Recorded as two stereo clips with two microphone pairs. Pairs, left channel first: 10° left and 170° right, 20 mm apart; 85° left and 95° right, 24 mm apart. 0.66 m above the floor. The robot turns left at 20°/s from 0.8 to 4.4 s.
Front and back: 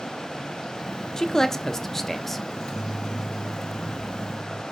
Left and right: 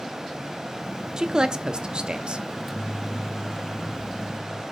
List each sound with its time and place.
1.2 s a man speaking: 45° right, 0.9 m; by 2.4 s 70° right, 0.9 m
2.5 s a microwave: 10° right, 1.3 m; by 4.6 s 45° right, 1.3 m